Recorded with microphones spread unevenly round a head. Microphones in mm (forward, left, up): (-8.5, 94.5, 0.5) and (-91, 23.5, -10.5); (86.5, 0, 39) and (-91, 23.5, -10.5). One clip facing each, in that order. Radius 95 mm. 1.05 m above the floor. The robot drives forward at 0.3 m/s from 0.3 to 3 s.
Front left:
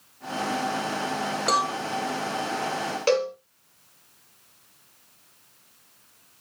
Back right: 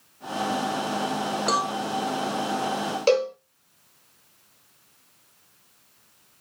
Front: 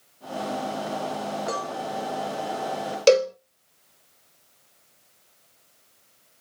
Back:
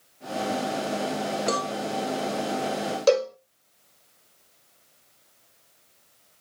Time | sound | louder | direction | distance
1.5 | a cowbell | front left 2 dB, back 3 dB | 130° left | 0.7 m
3.1 | a cowbell | back right 2 dB, front 4 dB | 65° right | 0.9 m